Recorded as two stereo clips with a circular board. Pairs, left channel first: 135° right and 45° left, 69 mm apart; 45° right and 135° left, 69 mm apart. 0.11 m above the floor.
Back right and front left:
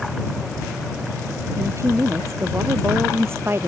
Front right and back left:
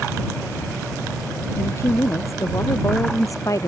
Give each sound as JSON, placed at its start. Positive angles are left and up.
{"t": 1.6, "sound": "a woman speaking", "azimuth_deg": 0}